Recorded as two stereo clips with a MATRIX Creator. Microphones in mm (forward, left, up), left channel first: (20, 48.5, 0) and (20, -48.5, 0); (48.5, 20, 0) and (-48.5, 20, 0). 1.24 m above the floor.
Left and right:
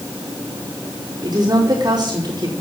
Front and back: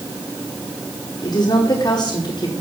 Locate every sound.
1.2 s a woman speaking: 45° right, 3 m